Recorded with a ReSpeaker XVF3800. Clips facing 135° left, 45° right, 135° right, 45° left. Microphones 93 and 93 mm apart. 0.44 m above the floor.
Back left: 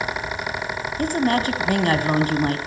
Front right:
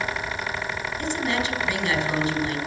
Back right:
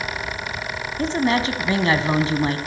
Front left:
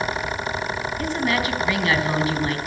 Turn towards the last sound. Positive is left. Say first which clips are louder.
# back left 7 dB, back right 4 dB
turn(degrees=170)